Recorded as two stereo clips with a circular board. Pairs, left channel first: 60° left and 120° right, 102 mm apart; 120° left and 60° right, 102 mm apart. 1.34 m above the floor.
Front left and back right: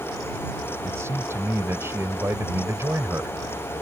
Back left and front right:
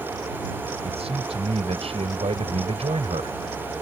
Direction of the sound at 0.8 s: 55° right.